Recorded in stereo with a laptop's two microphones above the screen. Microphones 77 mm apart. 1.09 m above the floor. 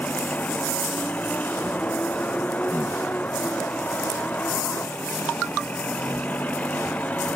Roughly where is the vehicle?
Left.